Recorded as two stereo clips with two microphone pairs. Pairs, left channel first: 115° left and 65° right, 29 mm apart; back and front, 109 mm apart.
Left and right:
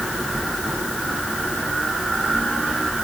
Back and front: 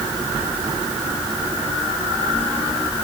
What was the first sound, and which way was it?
Only background noise.